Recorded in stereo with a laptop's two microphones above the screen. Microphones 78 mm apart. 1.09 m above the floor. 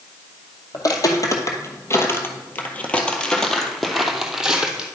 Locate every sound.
0.7 s footsteps: 55° left (ahead or behind), 1.7 m; by 4.9 s 10° right (ahead or behind), 2 m